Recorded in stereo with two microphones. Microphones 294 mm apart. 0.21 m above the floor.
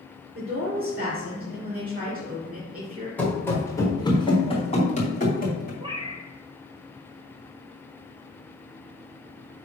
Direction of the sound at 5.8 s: 15° right (ahead or behind).